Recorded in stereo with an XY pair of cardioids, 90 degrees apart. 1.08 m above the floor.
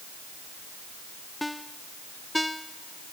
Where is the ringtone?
5° left.